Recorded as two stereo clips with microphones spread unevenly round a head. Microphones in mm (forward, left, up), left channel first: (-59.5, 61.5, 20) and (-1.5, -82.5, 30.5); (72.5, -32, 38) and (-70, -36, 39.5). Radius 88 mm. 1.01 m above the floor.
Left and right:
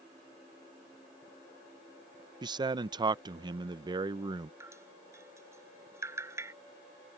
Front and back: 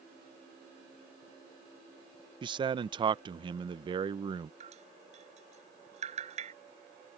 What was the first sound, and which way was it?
A man speaking, 130° right.